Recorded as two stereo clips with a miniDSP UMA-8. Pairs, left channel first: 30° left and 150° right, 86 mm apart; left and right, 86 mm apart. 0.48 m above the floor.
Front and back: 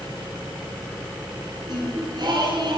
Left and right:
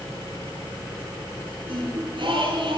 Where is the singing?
115° right, 7 m.